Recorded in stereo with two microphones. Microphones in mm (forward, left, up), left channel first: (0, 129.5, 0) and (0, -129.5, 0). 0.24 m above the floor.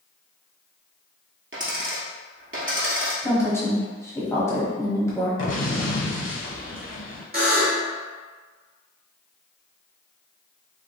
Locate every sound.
1.5 s a dropped coin: 50° right (ahead or behind), 1.3 m
3.2 s a woman speaking: 10° left (ahead or behind), 1.2 m
5.4 s an explosion: 50° left (ahead or behind), 0.8 m
7.3 s a buzzer: 35° right (ahead or behind), 1.1 m